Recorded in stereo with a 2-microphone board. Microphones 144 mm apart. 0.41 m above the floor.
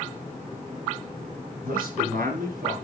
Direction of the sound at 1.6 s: 80° right.